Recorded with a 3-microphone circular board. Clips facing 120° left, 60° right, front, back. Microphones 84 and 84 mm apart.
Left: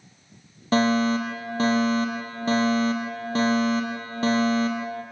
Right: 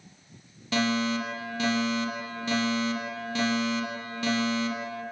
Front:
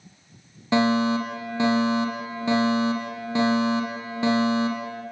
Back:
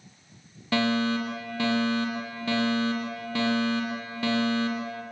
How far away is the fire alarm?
About 6.5 m.